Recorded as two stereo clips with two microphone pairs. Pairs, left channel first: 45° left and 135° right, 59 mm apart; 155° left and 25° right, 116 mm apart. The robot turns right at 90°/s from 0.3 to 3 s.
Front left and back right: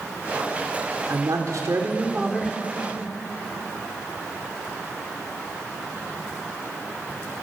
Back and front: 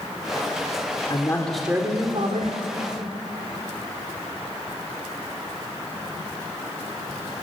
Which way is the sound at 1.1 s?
160° right.